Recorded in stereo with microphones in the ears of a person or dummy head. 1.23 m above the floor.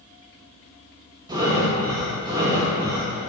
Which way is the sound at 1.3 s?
20° right (ahead or behind).